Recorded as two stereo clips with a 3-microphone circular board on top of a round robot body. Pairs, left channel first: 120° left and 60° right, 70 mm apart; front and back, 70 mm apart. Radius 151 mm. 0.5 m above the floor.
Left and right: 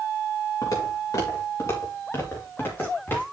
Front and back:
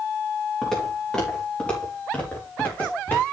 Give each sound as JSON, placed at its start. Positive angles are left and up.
{"t": 0.6, "sound": "footsteps", "azimuth_deg": 85, "distance_m": 4.5}